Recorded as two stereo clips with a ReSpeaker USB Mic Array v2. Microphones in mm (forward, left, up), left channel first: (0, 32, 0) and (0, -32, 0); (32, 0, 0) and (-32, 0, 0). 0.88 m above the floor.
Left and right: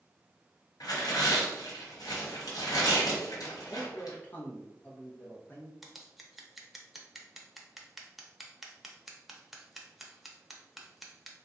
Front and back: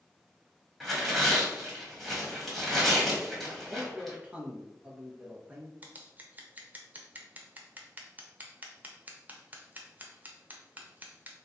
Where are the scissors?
175° right, 0.6 m.